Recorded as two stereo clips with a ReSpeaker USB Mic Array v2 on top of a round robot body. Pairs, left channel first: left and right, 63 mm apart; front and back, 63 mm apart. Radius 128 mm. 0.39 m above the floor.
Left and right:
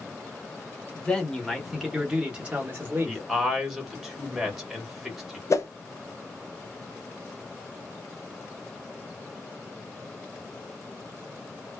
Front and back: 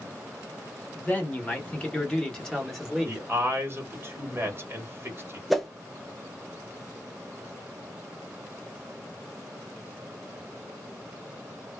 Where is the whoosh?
90° left, 0.6 m.